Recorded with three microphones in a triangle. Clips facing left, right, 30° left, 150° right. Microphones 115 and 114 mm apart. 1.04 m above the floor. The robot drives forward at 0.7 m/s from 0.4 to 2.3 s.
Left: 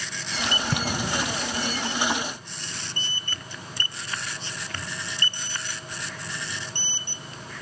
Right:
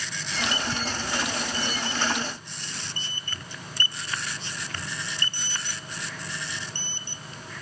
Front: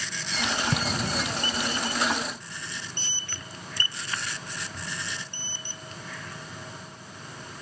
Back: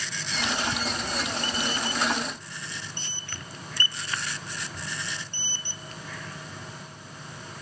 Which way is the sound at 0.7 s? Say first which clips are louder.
Left 3 dB, front 2 dB; 60° left.